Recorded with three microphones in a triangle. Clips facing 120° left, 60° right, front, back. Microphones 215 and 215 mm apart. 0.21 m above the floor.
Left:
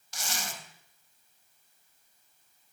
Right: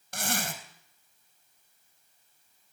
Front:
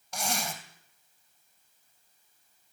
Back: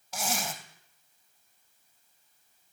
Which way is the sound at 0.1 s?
95° right.